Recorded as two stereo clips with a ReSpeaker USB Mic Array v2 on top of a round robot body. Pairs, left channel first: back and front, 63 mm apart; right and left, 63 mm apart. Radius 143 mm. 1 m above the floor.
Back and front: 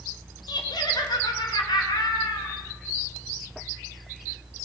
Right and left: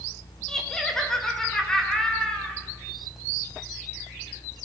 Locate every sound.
0.5 s laughter: 170° right, 3 m